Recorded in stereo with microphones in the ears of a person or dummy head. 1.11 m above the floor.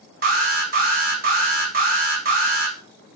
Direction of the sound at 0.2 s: 45° right (ahead or behind).